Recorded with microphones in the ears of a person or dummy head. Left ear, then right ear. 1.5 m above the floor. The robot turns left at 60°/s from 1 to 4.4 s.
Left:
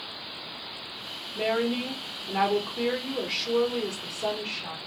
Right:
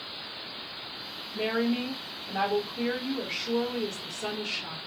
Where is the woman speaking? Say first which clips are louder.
Left 2 dB; 175° right, 1.1 m; by 4.8 s 5° left, 1.1 m.